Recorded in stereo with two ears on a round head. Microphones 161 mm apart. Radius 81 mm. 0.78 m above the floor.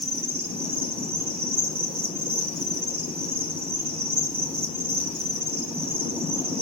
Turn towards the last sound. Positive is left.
turn(degrees=-35)  # may be behind; listen again after turning